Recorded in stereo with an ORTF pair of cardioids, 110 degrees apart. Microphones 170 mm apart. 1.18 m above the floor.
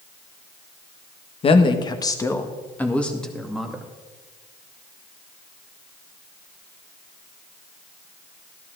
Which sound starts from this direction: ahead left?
A woman speaking, at 1.4 s.